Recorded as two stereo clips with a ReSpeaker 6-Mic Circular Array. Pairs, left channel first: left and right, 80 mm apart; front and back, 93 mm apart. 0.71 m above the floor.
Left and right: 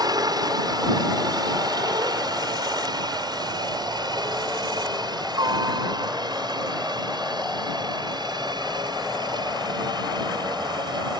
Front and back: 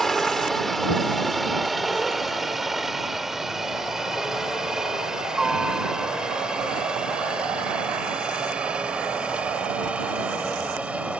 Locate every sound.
0.0 s a helicopter: 85° right; by 11.2 s 105° right